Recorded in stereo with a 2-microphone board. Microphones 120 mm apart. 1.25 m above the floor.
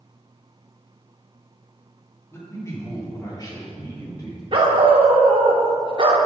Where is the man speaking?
20° left (ahead or behind), 2 m; by 4.4 s 35° left (ahead or behind), 3.5 m.